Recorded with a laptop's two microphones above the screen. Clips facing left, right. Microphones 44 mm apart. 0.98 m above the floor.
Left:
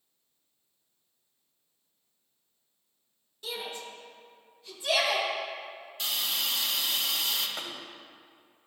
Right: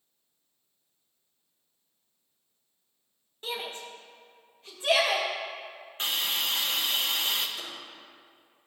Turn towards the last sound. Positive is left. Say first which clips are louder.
# left 2 dB
turn(degrees=75)  # may be behind; listen again after turning